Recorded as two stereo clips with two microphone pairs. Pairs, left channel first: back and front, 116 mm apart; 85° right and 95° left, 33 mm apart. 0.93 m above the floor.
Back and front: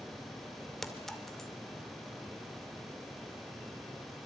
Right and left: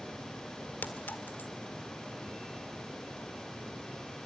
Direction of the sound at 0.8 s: 95° right.